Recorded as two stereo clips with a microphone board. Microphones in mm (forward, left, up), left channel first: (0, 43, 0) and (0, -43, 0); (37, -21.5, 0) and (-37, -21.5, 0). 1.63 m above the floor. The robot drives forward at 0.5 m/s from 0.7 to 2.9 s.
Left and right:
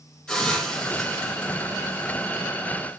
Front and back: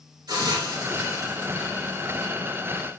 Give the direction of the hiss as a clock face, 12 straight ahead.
6 o'clock.